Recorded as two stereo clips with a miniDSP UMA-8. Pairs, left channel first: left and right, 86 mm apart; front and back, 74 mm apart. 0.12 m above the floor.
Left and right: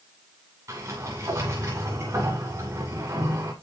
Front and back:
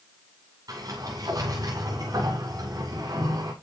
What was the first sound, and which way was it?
A sliding door, 140° right.